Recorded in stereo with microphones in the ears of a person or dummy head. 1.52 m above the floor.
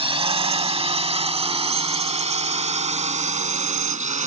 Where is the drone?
30° right (ahead or behind); by 4.3 s 40° right (ahead or behind).